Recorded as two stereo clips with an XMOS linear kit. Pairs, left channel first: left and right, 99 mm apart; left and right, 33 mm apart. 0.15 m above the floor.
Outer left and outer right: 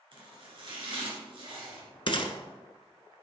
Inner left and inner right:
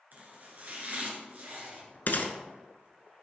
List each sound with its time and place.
0.1 s chopping: 55° right (ahead or behind), 2 m
2.1 s a gunshot: 55° left (ahead or behind), 0.8 m